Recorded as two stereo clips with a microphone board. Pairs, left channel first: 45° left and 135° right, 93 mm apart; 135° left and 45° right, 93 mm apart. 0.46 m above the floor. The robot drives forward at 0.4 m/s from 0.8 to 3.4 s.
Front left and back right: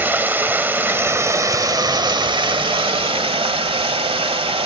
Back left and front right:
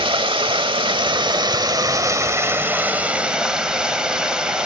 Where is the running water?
65° right, 1.0 m; by 4.7 s 125° right, 1.1 m.